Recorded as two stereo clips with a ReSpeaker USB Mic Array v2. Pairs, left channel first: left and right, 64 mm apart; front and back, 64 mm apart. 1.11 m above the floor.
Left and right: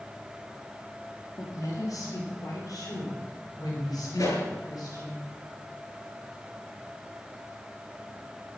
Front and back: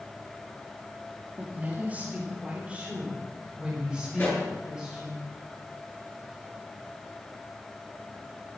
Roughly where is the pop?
Left.